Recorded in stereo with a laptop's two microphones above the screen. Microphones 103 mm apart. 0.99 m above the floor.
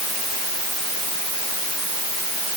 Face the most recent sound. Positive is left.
No sound to turn to.